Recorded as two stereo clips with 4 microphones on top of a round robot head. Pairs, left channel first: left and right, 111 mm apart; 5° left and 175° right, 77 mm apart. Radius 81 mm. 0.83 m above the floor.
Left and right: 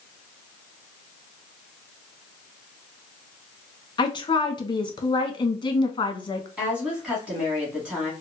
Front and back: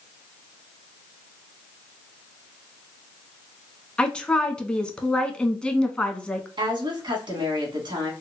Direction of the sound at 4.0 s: 80° left.